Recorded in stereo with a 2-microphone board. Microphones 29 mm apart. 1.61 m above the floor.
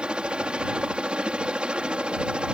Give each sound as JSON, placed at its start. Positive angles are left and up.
{"t": 0.0, "sound": "a helicopter", "side_deg": -30}